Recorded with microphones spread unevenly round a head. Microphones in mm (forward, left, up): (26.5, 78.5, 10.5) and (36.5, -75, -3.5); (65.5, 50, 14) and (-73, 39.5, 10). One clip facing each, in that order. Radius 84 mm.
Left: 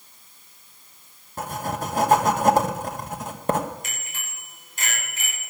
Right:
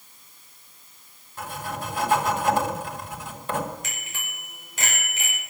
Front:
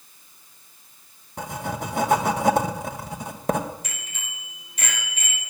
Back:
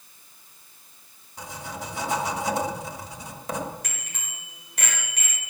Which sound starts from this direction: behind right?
A bicycle bell, at 3.8 s.